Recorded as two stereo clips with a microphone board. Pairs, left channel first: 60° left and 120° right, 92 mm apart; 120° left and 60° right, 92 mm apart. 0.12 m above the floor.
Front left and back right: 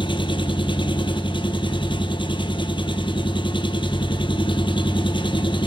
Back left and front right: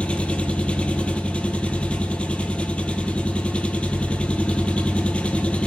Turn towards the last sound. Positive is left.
turn(degrees=45)